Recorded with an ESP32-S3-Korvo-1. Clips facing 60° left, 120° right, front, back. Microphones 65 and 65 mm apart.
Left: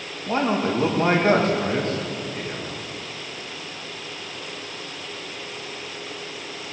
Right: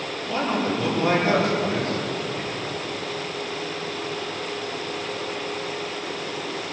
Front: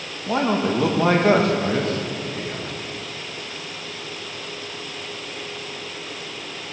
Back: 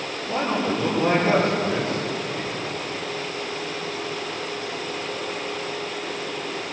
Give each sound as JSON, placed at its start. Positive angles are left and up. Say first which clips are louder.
{"t": 0.3, "sound": "a man speaking", "louder": "left 3 dB, front 3 dB", "azimuth_deg": 10, "distance_m": 2.0}